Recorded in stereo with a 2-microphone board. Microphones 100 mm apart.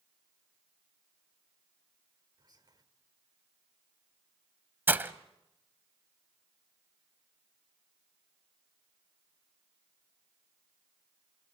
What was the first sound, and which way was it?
Whispering, 45° right (ahead or behind).